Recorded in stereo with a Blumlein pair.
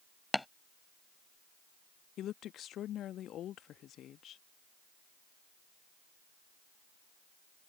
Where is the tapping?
5° left.